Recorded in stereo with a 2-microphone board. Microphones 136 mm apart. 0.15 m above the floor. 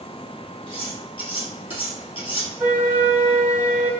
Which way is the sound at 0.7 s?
45° left (ahead or behind).